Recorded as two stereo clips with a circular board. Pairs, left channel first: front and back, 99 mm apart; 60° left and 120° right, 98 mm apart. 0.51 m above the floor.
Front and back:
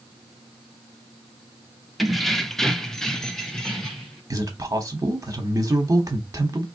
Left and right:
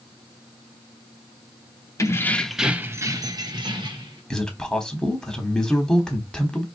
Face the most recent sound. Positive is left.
turn(degrees=140)